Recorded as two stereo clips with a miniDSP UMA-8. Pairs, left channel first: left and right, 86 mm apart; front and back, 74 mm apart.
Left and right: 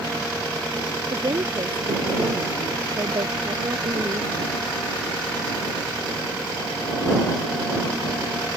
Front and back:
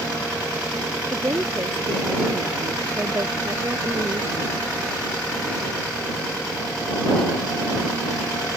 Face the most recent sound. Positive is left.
turn(degrees=-125)